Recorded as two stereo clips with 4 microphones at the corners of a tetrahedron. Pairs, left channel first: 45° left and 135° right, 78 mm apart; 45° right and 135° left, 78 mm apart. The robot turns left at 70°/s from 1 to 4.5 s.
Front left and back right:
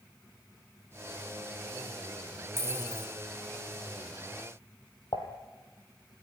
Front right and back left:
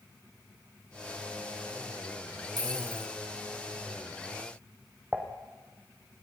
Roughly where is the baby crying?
I don't hear a baby crying.